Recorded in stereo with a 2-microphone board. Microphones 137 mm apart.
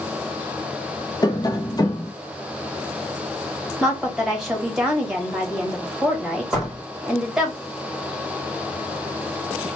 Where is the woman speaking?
5° right (ahead or behind), 1.6 m.